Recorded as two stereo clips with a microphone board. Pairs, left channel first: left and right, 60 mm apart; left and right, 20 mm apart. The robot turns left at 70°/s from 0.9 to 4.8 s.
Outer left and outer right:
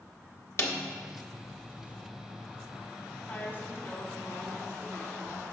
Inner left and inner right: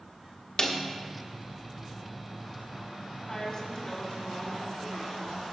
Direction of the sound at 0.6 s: 50° left (ahead or behind).